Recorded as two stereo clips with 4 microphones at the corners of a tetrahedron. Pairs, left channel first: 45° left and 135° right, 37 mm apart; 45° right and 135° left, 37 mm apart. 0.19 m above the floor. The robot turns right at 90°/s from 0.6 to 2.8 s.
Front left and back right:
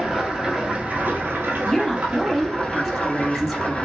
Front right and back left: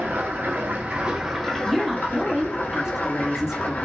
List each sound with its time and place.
0.0 s running water: 155° left, 1.5 m; by 3.9 s 10° right, 1.5 m
1.6 s a woman speaking: 35° left, 1.0 m; by 3.9 s 140° left, 1.0 m